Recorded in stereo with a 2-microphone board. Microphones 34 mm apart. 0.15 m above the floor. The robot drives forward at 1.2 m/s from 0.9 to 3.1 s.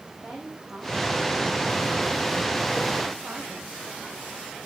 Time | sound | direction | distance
0.1 | a woman speaking | 40° right (ahead or behind) | 8.5 m